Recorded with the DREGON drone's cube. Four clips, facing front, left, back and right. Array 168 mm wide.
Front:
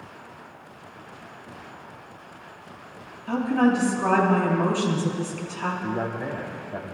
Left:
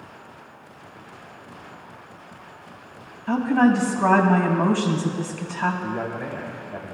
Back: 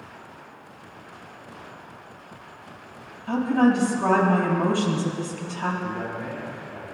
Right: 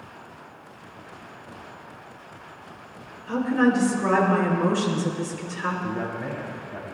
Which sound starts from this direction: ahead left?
A man speaking, at 5.8 s.